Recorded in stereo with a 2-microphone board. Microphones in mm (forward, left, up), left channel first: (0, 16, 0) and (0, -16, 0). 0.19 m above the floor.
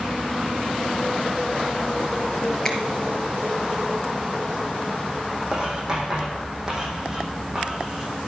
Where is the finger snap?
20° left (ahead or behind), 2.5 m.